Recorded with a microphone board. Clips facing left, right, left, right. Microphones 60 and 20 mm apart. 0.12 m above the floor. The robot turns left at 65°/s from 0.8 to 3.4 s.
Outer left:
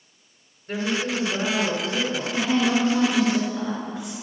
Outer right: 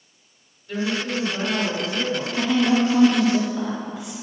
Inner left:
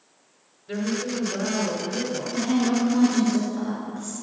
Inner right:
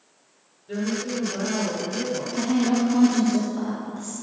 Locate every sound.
0.7 s a woman speaking: 90° left, 1.9 m; by 2.3 s 5° right, 1.9 m
2.4 s a woman speaking: 65° left, 1.7 m; by 4.1 s straight ahead, 1.7 m